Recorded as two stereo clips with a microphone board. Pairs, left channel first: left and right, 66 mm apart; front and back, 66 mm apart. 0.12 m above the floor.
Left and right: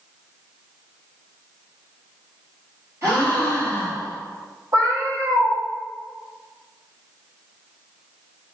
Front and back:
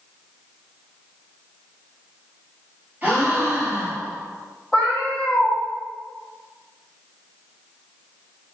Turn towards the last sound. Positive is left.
turn(degrees=-80)